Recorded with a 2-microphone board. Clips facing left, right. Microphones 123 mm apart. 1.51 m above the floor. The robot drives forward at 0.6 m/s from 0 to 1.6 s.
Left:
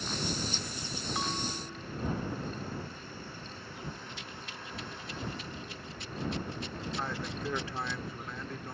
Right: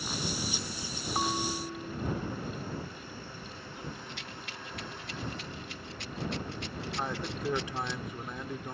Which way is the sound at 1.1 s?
40° right (ahead or behind).